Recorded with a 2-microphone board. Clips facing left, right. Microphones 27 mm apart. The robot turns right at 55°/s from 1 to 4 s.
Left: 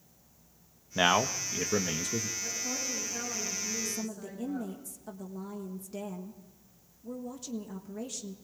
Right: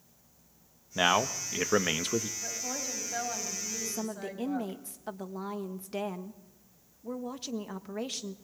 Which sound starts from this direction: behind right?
A woman speaking, at 2.4 s.